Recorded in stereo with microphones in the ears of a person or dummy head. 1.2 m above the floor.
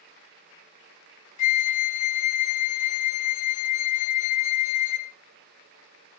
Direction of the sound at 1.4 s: 45° left (ahead or behind).